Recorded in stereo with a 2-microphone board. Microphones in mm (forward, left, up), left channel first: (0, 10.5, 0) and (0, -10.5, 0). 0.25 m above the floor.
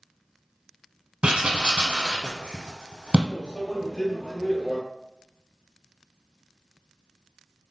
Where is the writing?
60° right (ahead or behind), 0.8 m.